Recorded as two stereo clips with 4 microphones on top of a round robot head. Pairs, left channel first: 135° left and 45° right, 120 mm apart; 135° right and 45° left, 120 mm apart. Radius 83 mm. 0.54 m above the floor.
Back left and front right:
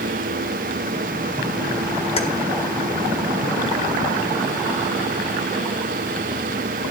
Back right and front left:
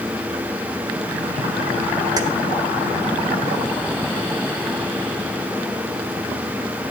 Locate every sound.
2.2 s keys jangling: 100° left, 1.8 m